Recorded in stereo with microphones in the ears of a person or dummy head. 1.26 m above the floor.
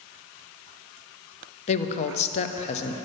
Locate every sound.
1.7 s a woman speaking: 35° left (ahead or behind), 0.6 m